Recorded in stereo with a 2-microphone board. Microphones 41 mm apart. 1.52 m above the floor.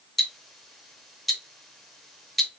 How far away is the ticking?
About 0.6 m.